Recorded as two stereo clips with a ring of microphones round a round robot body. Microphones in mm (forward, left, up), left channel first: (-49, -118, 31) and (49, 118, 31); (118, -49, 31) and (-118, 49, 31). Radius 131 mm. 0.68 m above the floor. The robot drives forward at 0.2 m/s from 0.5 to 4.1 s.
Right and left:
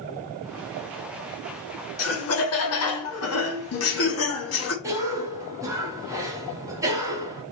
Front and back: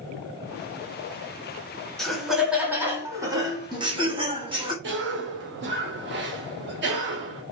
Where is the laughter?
110° right, 0.9 m; by 4.7 s 135° right, 1.1 m.